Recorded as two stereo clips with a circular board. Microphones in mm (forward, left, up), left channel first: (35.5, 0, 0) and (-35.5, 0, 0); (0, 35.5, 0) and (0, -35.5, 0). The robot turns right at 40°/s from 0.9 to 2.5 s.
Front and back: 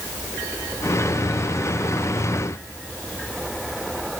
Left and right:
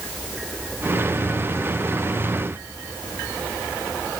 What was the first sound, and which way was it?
Only background noise.